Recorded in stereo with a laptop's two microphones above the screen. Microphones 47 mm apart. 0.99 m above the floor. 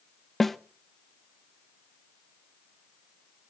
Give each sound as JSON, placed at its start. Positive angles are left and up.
{"t": 0.4, "sound": "a snare drum", "side_deg": 5, "distance_m": 0.6}